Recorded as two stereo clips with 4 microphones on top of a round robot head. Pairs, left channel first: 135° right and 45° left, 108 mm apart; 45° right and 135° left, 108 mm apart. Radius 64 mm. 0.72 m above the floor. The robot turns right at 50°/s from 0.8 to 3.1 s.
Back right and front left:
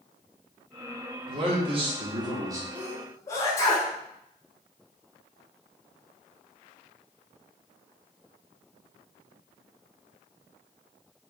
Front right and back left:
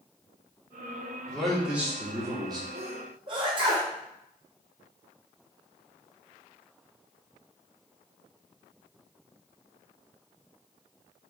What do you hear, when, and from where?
1.3 s a man speaking: 30° left, 1.4 m; by 2.6 s 100° left, 1.4 m
2.8 s a sneeze: 150° left, 1.1 m; by 3.9 s 170° left, 1.1 m